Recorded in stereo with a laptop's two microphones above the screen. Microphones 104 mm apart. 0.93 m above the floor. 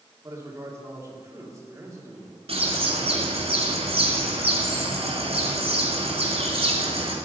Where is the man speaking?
30° right (ahead or behind), 1.8 m.